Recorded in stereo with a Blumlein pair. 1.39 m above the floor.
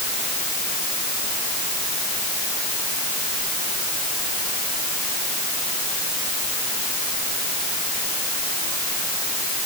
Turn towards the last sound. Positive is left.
No sound to turn to.